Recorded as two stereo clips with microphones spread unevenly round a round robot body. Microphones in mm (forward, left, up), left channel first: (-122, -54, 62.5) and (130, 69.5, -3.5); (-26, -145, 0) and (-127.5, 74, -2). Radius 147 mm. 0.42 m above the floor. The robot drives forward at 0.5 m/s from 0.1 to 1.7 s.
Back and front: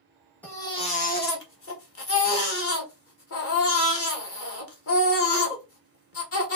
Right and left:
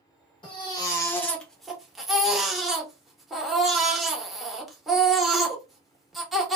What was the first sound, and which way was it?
A baby crying, 40° right.